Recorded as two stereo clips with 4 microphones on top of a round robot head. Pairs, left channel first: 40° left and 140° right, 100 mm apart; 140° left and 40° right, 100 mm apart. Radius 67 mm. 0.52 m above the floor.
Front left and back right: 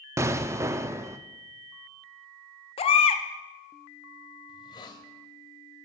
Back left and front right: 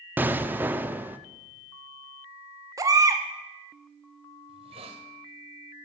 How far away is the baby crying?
About 0.8 m.